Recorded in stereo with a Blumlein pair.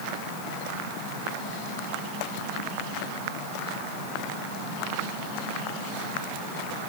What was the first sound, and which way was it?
Only background noise.